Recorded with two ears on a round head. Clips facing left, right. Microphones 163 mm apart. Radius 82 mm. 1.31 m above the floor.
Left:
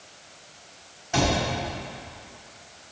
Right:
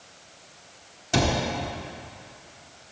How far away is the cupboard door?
About 1.4 m.